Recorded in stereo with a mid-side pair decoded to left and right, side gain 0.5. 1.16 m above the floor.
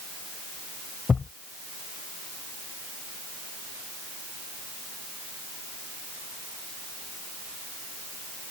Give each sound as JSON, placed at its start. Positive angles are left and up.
{"t": 1.1, "sound": "a thud", "azimuth_deg": 30}